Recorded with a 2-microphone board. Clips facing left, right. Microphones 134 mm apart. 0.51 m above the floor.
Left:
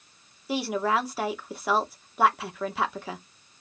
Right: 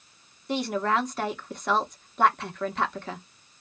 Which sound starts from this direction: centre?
A woman speaking, at 0.5 s.